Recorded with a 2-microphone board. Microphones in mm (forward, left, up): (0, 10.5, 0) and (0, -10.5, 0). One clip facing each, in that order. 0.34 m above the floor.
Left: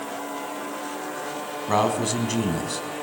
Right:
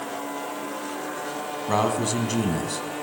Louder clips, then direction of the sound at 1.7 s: Left 1 dB; 5° left (ahead or behind).